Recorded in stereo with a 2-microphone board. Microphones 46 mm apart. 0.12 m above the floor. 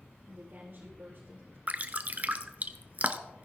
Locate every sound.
0.3 s a woman speaking: 50° right (ahead or behind), 4 m
1.7 s dripping: 40° right (ahead or behind), 0.5 m